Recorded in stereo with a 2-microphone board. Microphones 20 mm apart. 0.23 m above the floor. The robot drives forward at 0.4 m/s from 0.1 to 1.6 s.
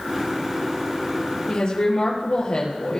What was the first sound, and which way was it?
A woman speaking, 50° left (ahead or behind).